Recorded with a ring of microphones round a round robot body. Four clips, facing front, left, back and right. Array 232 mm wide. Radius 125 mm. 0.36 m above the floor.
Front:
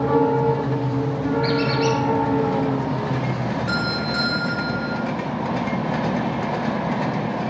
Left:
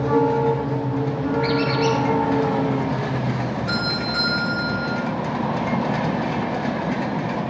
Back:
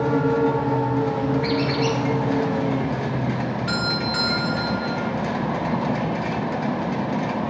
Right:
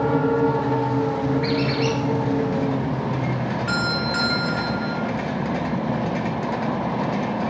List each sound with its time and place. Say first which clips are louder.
1.4 s a squeak: left 2 dB, front 2 dB; 30° right, 6.5 m
3.7 s a doorbell: right 1 dB, front 1 dB; 105° right, 3.5 m